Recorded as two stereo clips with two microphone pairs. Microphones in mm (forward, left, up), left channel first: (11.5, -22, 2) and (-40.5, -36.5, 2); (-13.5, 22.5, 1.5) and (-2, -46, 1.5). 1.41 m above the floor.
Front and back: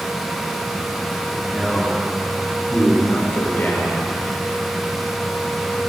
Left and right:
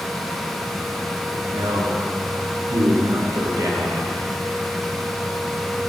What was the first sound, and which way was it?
A man speaking, 75° right.